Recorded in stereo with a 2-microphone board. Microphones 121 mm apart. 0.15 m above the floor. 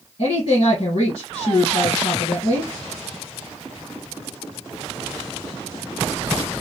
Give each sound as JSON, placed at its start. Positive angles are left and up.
{"t": 0.2, "sound": "a woman speaking", "side_deg": 55, "distance_m": 2.0}